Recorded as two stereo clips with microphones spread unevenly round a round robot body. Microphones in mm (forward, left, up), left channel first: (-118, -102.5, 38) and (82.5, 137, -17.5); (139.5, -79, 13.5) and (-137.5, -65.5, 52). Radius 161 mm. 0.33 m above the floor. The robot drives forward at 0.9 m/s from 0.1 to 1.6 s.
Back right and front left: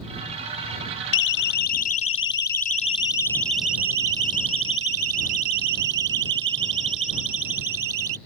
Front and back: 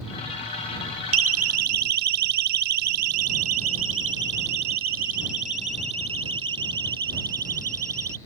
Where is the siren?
145° right; by 8.2 s 95° left.